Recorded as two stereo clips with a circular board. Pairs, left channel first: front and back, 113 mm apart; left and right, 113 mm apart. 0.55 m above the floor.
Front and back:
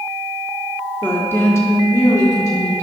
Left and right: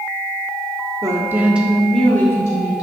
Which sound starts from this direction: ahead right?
A woman speaking, at 1.0 s.